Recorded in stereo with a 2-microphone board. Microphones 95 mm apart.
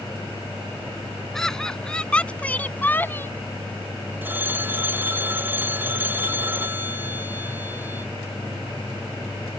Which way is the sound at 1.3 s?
5° left (ahead or behind).